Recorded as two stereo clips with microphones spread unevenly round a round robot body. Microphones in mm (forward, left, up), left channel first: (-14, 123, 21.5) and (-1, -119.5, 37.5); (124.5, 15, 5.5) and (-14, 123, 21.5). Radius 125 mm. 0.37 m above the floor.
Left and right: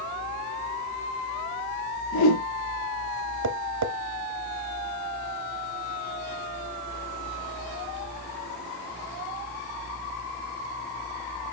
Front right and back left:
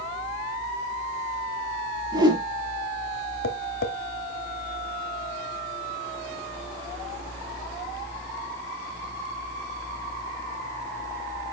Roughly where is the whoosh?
Left.